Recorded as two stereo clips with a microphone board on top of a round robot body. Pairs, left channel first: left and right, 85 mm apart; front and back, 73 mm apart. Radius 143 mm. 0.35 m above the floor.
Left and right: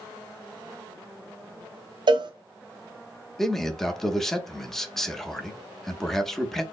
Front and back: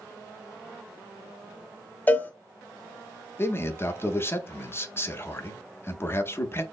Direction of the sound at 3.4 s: 5° left.